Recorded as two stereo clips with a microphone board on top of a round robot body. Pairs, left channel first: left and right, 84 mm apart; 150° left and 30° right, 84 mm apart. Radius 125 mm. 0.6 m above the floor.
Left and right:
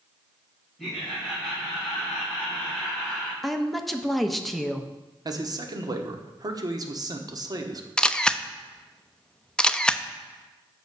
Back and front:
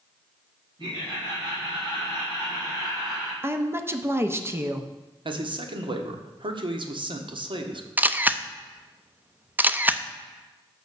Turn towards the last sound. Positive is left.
turn(degrees=20)